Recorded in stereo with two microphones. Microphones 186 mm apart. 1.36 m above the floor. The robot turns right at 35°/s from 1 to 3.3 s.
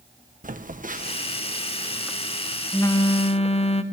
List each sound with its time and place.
0.4 s a phone buzzing: 45° right, 1.3 m; by 3.8 s 35° left, 1.3 m